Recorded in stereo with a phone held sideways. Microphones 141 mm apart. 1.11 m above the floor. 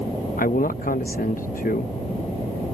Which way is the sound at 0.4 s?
85° left.